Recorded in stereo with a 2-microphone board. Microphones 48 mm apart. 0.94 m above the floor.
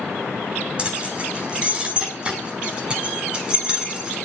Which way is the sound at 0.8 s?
25° right (ahead or behind).